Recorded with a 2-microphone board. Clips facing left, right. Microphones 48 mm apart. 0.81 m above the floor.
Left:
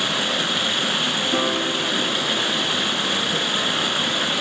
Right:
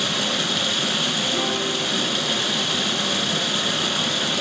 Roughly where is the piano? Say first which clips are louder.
Left 2 dB; left.